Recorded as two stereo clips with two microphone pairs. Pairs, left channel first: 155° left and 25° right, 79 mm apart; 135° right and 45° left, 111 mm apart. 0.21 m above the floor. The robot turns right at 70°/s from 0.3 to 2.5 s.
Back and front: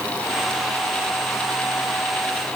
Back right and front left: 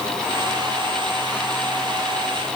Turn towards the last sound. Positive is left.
No sound to turn to.